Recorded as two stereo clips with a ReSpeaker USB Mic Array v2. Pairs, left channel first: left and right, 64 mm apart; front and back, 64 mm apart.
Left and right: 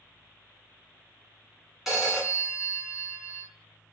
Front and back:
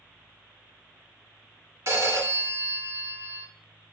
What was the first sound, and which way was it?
A phone ringing, 170° right.